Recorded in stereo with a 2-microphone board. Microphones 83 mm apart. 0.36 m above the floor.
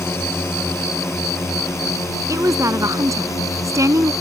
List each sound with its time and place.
0.0 s a drone: 30° left (ahead or behind); by 4.2 s 35° left (ahead or behind)
2.3 s a woman speaking: 40° right (ahead or behind)